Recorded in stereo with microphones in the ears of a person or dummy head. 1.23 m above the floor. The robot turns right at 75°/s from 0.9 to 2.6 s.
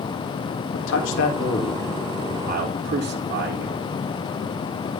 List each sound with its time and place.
0.7 s a man speaking: 100° left, 4 m; by 3.8 s 130° right, 4 m